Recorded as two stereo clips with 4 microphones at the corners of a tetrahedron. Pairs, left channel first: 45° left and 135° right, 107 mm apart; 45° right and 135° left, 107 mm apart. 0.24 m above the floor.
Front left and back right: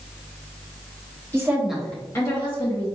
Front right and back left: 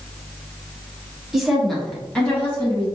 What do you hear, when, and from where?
1.3 s a woman speaking: 145° right, 1.2 m; by 2.9 s 25° left, 2.0 m